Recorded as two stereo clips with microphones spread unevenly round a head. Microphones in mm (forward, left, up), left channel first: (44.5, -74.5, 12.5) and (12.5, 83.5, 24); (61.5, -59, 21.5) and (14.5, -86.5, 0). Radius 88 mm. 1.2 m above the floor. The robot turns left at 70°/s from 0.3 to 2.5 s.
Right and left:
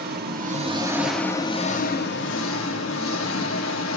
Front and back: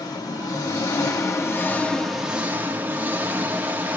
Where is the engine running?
70° left, 1.9 m; by 4.0 s 85° right, 1.9 m.